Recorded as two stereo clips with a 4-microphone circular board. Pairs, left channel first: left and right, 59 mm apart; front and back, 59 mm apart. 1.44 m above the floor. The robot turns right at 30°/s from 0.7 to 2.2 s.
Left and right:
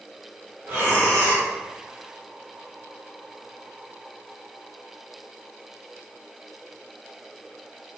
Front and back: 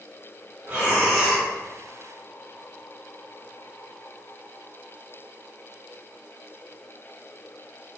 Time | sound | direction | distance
0.7 | breathing | 130° right | 1.5 m